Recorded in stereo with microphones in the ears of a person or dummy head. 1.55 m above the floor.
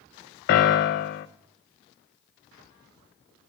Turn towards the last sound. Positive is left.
turn(degrees=45)  # may be behind; listen again after turning